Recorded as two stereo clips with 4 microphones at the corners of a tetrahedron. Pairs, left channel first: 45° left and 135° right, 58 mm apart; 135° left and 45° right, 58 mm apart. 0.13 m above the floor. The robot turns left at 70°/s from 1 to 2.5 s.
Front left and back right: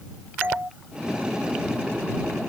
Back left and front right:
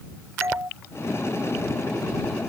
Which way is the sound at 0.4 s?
85° right.